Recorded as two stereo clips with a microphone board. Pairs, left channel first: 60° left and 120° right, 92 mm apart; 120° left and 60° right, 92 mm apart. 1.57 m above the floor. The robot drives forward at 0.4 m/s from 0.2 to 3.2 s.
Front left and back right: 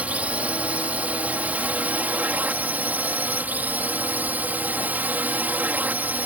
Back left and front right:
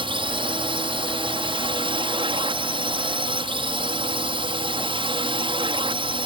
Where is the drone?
45° right; by 6.3 s 50° right.